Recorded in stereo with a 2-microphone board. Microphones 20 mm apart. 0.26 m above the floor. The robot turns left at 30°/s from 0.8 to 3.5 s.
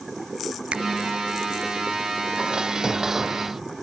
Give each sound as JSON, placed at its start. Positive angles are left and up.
{"t": 0.7, "sound": "a finger snap", "side_deg": -75}
{"t": 2.4, "sound": "dishes clattering", "azimuth_deg": -130}